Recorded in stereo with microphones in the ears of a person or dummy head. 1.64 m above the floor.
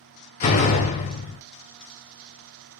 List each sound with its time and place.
0.4 s a door slam: 30° left (ahead or behind), 0.6 m